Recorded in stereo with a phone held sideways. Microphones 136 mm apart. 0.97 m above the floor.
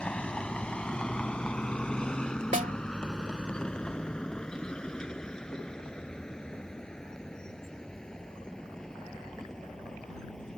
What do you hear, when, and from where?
0.0 s a vehicle: 10° left (ahead or behind); by 10.6 s 5° left (ahead or behind)
2.5 s a snare drum: 75° right (ahead or behind)